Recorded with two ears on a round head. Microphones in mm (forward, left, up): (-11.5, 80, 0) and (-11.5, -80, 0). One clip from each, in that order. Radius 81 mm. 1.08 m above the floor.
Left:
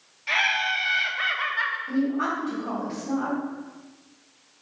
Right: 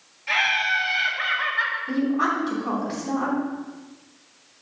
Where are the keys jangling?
I don't hear keys jangling.